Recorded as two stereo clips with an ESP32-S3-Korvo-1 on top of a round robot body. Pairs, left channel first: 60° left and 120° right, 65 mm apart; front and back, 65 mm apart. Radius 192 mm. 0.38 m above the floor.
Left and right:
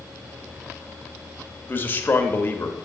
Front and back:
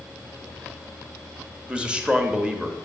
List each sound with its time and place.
1.7 s a man speaking: 105° left, 1.1 m